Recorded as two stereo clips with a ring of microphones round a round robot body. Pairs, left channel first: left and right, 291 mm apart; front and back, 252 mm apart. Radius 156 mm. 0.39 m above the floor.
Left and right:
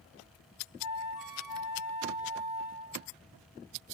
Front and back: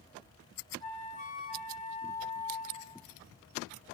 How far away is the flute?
About 3 m.